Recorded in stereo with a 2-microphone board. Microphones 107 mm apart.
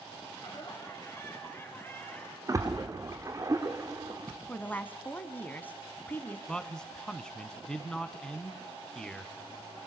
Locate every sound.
0.3 s laughter: 35° left (ahead or behind), 4 m; by 2.4 s 10° left (ahead or behind), 4 m
2.5 s a splash: 30° right (ahead or behind), 2.5 m
4.5 s a woman speaking: 15° left (ahead or behind), 1.6 m
6.5 s a man speaking: 5° left (ahead or behind), 1.4 m